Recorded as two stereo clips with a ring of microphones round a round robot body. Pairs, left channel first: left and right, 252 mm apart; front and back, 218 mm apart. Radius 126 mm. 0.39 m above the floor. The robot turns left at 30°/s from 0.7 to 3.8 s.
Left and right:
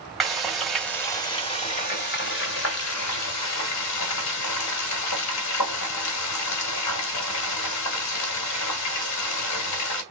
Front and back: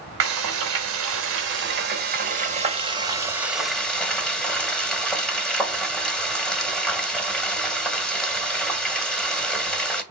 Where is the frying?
Straight behind, 1.6 m; by 10.0 s 85° left, 1.6 m.